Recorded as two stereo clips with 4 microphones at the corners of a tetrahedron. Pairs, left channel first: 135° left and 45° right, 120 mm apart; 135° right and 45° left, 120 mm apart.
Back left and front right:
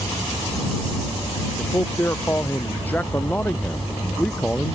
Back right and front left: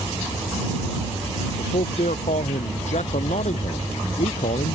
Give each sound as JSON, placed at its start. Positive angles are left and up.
{"t": 1.6, "sound": "a man speaking", "azimuth_deg": -155}